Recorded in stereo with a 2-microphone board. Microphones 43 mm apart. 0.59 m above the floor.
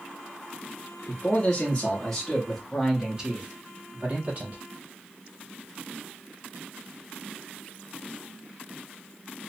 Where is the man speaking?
40° left (ahead or behind), 1.2 m; by 4.6 s 45° right (ahead or behind), 1.5 m.